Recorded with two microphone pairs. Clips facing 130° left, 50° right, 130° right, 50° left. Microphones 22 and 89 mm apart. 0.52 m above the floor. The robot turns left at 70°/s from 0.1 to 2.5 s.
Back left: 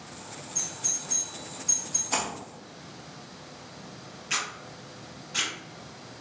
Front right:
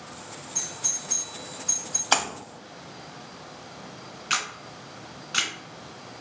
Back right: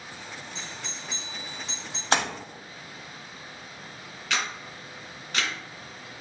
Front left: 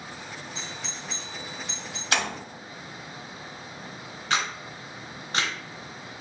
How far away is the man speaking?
No man speaking in this recording.